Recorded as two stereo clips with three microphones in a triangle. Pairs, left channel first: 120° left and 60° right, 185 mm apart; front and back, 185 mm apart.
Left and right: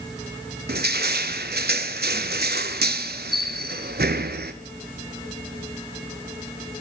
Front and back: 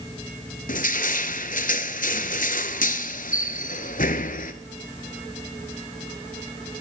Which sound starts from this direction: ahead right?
Crushing, at 0.7 s.